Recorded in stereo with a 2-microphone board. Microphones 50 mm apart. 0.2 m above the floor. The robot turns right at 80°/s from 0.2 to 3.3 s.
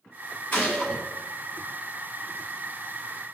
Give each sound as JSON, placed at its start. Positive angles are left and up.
{"t": 0.5, "sound": "a gunshot", "azimuth_deg": 145, "distance_m": 1.5}